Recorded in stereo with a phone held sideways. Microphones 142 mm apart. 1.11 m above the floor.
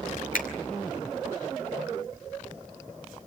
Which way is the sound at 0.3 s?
75° left (ahead or behind).